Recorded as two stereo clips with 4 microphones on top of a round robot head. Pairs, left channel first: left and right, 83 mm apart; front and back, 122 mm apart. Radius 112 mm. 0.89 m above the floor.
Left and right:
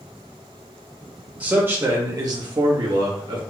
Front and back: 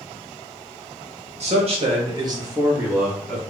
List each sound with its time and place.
1.4 s a man speaking: 165° right, 1.0 m; by 3.4 s 90° right, 1.3 m